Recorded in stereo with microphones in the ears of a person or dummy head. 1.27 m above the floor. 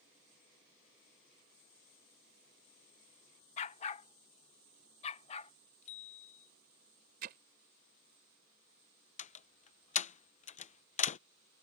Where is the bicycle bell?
40° left (ahead or behind).